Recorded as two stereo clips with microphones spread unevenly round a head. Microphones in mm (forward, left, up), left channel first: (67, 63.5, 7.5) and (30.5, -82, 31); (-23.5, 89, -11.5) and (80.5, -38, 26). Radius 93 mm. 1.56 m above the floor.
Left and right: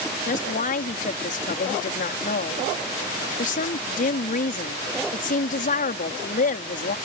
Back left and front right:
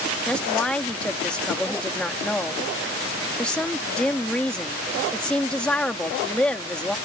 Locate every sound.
0.3 s a woman speaking: 45° left